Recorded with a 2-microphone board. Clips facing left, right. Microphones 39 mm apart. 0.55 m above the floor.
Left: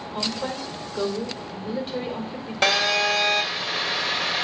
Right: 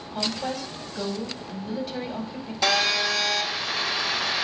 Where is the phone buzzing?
70° left (ahead or behind), 1.8 m.